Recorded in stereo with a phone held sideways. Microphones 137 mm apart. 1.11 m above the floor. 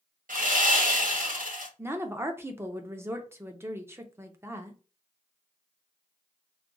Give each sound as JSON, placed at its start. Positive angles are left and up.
{"t": 0.3, "sound": "sawing", "side_deg": -85, "distance_m": 1.1}
{"t": 1.8, "sound": "a woman speaking", "side_deg": -20, "distance_m": 0.6}